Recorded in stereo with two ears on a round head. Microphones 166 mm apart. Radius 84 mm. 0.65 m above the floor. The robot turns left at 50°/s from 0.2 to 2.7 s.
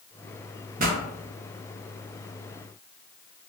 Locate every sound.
0.8 s a pop: 40° right (ahead or behind), 0.6 m; by 1.0 s 50° right (ahead or behind), 0.6 m